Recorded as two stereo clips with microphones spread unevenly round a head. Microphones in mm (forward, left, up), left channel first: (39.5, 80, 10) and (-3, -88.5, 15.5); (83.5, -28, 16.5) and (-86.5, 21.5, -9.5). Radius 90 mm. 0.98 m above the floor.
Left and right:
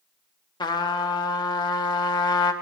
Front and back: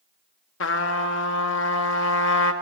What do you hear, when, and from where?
0.6 s a trumpet: 10° left, 1.3 m